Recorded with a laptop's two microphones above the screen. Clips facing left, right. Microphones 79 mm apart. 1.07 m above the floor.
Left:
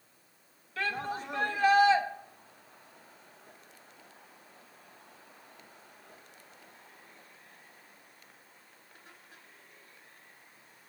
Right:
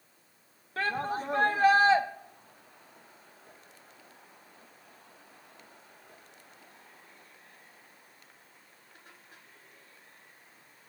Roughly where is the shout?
Right.